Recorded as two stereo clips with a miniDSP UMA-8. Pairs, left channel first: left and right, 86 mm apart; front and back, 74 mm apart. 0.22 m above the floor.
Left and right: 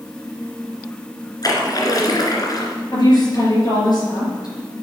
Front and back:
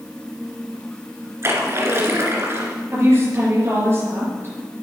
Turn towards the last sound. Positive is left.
turn(degrees=125)